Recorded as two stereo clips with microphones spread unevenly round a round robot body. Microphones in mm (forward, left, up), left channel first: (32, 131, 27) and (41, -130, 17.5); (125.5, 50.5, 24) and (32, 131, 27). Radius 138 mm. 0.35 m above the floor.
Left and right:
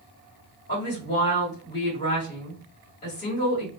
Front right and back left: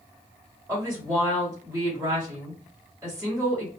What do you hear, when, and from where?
0.7 s a woman speaking: 85° left, 1.7 m